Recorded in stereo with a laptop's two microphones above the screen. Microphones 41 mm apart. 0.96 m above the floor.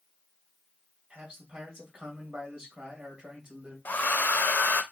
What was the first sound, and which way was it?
A man speaking, 30° right (ahead or behind).